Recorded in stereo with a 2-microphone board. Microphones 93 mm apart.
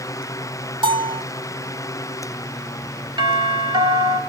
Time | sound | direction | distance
0.8 | a bell | 55° right (ahead or behind) | 0.9 m
3.2 | a doorbell | 55° right (ahead or behind) | 4 m